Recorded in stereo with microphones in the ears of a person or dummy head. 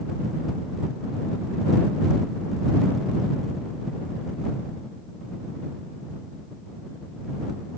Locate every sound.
Only background noise.